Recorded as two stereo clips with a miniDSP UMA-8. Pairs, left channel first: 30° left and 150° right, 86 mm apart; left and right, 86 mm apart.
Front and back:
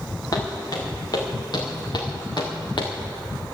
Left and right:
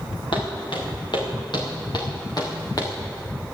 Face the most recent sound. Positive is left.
turn(degrees=45)